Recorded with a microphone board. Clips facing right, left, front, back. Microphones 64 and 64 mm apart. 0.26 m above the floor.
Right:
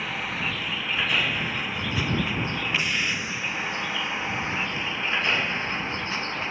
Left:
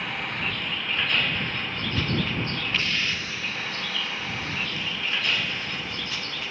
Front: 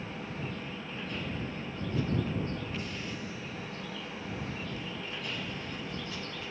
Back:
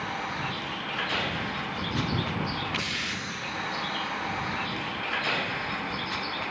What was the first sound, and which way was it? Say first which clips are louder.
A vehicle: right 1 dB, back 8 dB; straight behind.